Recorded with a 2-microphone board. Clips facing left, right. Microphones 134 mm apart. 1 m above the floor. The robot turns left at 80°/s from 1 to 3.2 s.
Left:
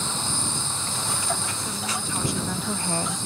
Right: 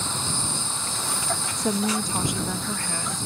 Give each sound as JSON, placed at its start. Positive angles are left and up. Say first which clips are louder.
{"t": 1.6, "sound": "a woman speaking", "louder": "right 7 dB", "azimuth_deg": -100}